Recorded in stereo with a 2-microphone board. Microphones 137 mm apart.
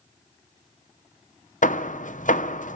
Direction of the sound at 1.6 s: 65° left (ahead or behind).